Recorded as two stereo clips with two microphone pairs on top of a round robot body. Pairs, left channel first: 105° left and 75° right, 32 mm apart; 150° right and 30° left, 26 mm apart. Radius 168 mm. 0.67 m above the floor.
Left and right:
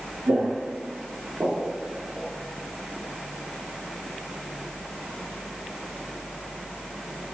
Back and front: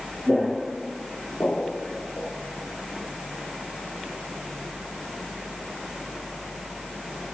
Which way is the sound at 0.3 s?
55° right.